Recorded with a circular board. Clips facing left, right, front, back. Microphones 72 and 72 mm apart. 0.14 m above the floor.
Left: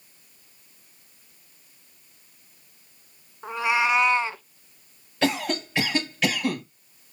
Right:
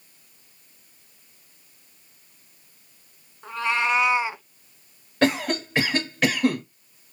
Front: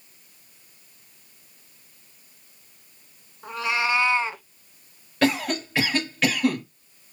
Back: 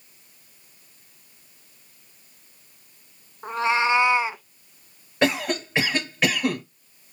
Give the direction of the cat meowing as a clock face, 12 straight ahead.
7 o'clock.